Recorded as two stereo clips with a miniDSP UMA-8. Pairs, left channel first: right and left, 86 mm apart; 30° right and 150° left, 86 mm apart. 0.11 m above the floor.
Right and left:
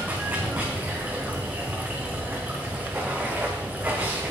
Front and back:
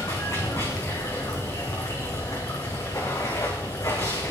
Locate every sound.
0.0 s running water: 20° left, 3 m